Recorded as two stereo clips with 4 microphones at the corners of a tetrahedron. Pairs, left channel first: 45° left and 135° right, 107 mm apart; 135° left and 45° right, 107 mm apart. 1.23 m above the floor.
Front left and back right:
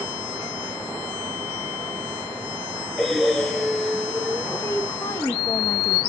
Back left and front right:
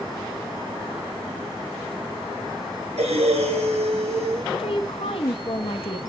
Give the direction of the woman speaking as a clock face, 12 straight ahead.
8 o'clock.